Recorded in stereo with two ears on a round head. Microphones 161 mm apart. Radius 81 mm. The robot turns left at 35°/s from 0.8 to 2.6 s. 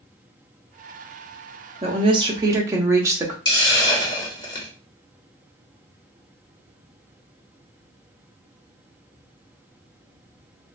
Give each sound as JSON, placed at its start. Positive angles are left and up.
{"t": 1.8, "sound": "a woman speaking", "side_deg": -35, "distance_m": 0.9}
{"t": 3.5, "sound": "a hiss", "side_deg": 25, "distance_m": 1.4}